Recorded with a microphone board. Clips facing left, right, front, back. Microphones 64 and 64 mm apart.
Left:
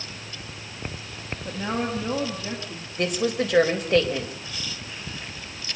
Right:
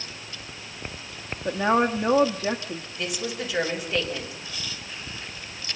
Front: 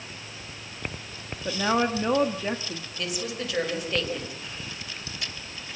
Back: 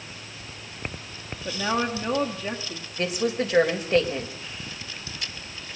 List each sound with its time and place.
1.4 s a woman speaking: 65° right, 1.3 m
3.0 s a woman speaking: 125° left, 4 m